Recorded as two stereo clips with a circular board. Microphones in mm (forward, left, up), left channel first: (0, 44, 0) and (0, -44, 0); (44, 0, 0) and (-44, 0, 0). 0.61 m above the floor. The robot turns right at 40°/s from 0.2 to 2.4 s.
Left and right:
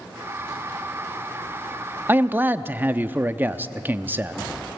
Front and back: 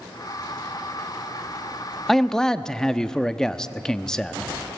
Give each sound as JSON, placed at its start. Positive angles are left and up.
{"t": 2.1, "sound": "a man speaking", "azimuth_deg": -85, "distance_m": 0.6}